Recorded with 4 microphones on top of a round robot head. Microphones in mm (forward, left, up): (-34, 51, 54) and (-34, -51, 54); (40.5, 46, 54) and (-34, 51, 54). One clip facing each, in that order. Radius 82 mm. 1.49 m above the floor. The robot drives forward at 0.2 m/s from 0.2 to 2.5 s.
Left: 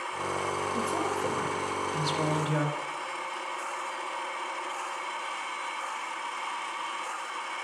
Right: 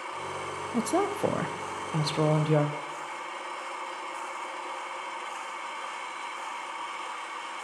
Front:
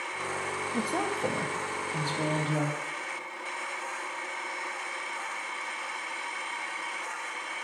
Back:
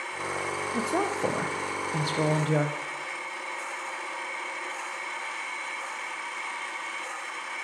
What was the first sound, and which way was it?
A woman speaking, 105° right.